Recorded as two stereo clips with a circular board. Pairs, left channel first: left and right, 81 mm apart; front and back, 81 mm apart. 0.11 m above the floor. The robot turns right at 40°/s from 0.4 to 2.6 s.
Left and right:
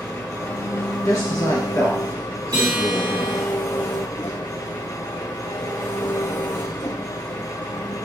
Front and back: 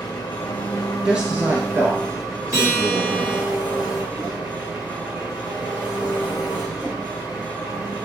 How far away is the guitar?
About 5 m.